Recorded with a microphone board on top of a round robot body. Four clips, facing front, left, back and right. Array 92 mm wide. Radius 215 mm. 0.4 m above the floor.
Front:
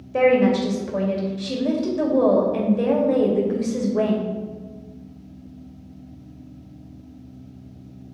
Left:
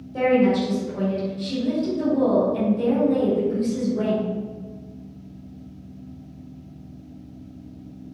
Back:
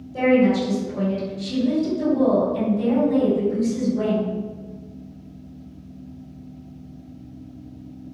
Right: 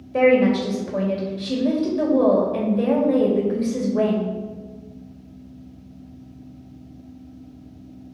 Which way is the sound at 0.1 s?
40° right.